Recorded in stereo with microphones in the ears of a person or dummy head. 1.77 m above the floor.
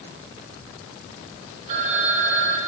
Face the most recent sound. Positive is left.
turn(degrees=-45)  # may be behind; listen again after turning